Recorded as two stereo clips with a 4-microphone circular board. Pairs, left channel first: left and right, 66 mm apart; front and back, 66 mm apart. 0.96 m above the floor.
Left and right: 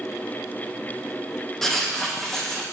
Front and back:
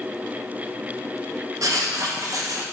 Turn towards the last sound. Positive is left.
turn(degrees=175)